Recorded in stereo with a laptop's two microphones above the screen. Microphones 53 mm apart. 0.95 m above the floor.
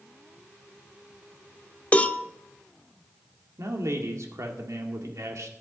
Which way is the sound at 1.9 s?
25° left (ahead or behind).